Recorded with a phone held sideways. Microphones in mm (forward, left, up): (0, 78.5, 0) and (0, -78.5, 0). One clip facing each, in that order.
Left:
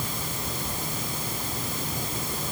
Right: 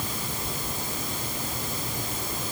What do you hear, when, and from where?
Only background noise.